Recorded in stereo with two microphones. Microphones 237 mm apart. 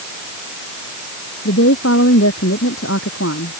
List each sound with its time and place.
1.4 s a woman speaking: 80° left